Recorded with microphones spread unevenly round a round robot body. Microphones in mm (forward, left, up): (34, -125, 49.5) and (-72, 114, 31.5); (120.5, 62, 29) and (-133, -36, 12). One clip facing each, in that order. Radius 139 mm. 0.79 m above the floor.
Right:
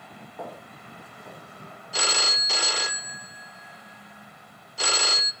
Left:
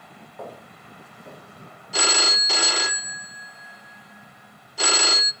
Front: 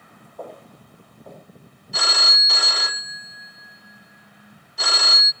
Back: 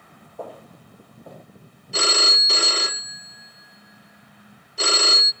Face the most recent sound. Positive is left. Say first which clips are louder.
# left 5 dB, back 7 dB
turn(degrees=140)